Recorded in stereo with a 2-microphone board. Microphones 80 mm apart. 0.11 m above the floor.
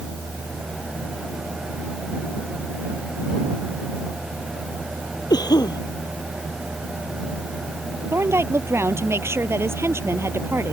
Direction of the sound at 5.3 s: 60° left (ahead or behind).